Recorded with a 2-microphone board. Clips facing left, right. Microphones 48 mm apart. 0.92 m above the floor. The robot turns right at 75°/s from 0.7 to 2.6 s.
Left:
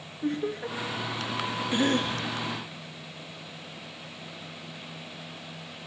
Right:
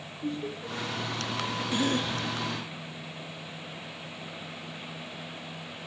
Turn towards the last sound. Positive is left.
turn(degrees=100)